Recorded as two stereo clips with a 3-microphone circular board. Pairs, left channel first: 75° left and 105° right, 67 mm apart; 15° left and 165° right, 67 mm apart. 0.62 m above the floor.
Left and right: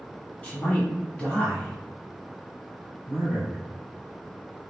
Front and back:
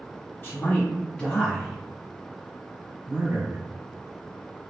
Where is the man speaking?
25° left, 1.4 m; by 3.6 s 175° left, 1.5 m.